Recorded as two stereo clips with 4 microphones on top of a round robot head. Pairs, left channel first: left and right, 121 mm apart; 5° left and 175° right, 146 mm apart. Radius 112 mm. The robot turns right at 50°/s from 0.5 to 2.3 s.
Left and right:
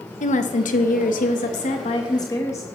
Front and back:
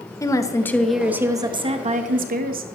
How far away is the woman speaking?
About 1.3 m.